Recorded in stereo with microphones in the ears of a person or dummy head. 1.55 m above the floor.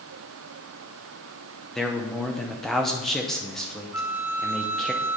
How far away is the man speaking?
About 0.7 m.